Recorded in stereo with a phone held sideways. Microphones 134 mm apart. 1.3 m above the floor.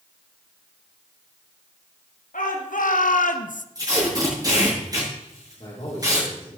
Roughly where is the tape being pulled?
Right.